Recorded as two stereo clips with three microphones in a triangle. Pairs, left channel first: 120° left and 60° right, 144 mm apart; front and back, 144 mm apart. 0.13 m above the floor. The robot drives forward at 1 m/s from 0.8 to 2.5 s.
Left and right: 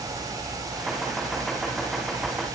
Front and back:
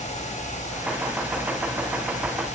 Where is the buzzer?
No buzzer in this recording.